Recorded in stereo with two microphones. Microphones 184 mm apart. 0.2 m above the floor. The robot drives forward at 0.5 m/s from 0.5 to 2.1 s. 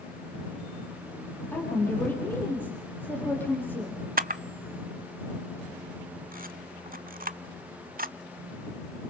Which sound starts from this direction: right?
A camera shutter, at 4.2 s.